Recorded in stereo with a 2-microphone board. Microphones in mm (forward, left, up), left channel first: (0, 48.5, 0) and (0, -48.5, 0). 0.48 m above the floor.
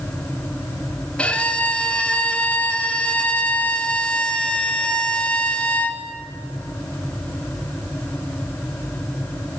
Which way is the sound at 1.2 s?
10° left (ahead or behind).